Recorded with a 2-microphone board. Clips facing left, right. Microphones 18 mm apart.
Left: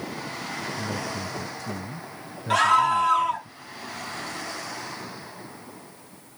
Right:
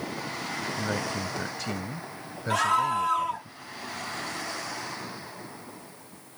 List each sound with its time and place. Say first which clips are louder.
0.8 s a man speaking: right 1 dB; 50° right (ahead or behind)
2.5 s a scream: left 5 dB; 20° left (ahead or behind)